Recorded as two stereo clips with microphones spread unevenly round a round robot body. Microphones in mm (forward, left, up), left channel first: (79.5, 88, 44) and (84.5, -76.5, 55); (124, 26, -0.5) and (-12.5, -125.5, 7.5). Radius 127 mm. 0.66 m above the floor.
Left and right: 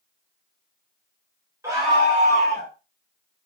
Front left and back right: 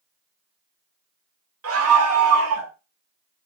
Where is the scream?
165° right, 2.5 m; by 2.7 s 135° right, 3 m.